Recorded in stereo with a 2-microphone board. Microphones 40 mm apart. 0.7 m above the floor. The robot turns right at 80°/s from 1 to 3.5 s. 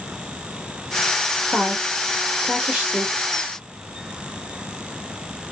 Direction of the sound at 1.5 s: 15° right (ahead or behind).